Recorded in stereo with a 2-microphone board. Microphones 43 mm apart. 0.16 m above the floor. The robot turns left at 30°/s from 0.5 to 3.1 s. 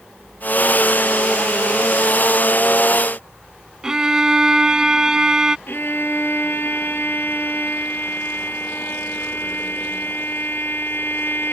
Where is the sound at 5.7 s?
60° left (ahead or behind).